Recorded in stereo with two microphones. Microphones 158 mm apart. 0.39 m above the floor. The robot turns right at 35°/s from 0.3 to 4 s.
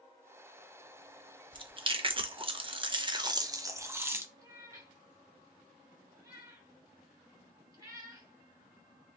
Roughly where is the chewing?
Right.